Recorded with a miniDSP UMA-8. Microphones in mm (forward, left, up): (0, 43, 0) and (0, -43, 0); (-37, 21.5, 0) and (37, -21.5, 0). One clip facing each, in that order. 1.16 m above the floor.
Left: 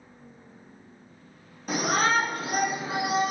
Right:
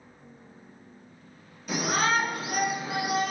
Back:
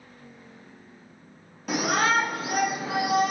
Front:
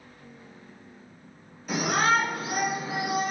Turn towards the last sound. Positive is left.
turn(degrees=160)